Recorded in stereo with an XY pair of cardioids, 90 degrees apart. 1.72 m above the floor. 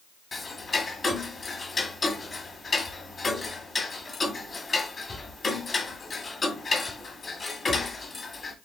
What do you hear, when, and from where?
0.3 s ticking: 35° left, 1.6 m